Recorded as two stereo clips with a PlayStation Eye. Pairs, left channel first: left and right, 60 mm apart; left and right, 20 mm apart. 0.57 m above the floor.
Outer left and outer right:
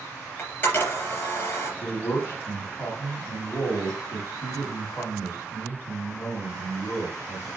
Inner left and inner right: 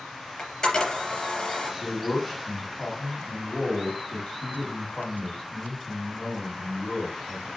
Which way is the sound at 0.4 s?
35° left (ahead or behind).